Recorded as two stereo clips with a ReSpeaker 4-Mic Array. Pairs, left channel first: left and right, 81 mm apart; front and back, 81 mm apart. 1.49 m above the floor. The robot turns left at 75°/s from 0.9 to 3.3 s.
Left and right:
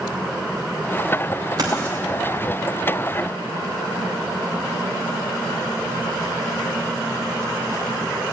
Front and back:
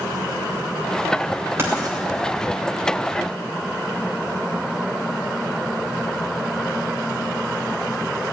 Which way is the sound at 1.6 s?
120° right.